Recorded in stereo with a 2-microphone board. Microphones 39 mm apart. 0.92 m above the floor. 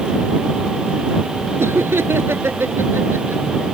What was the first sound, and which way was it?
Laughter, 75° right (ahead or behind).